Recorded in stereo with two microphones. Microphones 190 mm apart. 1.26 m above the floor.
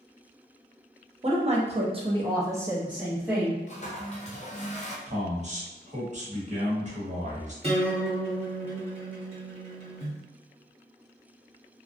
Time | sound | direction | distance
1.2 | a woman speaking | 35° right (ahead or behind) | 0.7 m
3.7 | a toilet flushing | 40° left (ahead or behind) | 0.5 m
5.1 | a man speaking | 40° right (ahead or behind) | 1.0 m
7.6 | a guitar | 35° right (ahead or behind) | 1.2 m